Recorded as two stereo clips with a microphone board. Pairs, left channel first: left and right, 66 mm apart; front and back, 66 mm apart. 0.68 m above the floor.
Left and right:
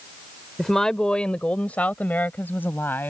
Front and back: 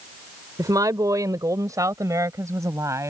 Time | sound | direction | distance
0.6 | a woman speaking | 175° left | ?